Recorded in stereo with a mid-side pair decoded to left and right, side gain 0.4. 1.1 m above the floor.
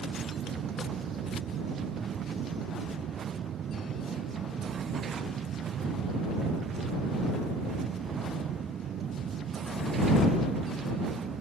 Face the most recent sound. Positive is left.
turn(degrees=-65)